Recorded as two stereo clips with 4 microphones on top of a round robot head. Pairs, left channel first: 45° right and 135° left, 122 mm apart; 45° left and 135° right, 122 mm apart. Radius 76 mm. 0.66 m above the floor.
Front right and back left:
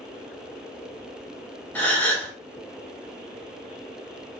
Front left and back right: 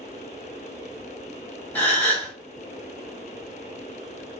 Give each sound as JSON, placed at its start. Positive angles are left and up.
{"t": 1.8, "sound": "a gasp", "azimuth_deg": 0, "distance_m": 1.1}